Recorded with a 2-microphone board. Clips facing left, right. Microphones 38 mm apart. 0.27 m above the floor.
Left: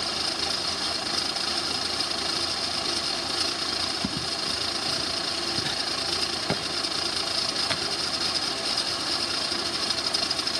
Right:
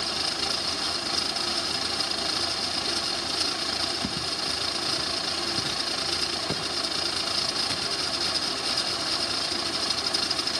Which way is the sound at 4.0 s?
15° left (ahead or behind).